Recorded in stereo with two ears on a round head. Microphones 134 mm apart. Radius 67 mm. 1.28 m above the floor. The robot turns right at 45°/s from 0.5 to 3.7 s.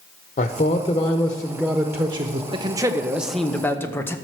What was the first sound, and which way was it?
A man speaking, 135° left.